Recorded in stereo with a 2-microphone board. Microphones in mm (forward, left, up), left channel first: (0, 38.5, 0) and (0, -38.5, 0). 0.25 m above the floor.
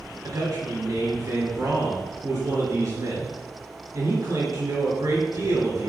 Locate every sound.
0.2 s a man speaking: 45° right (ahead or behind), 3.5 m